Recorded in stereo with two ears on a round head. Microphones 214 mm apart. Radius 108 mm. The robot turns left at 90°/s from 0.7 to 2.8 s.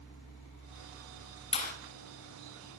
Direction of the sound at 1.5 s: 25° left (ahead or behind).